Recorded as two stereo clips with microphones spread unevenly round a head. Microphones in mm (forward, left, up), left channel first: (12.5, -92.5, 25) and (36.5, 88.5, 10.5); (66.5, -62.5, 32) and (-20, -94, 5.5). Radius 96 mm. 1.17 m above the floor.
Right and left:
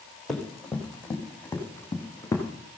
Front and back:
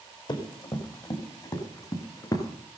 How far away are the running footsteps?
About 4.5 m.